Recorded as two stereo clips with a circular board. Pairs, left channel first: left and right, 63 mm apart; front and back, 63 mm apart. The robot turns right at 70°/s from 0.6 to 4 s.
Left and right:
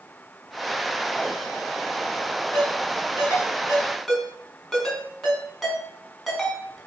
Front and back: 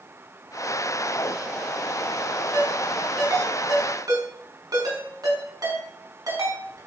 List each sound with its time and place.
2.5 s a ringtone: 75° left, 5.5 m; by 6.8 s straight behind, 5.5 m